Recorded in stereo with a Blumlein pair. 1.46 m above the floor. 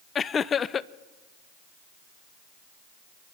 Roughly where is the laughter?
Ahead.